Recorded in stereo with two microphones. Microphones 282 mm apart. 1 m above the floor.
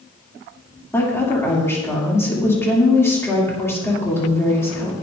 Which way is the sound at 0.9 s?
10° left (ahead or behind).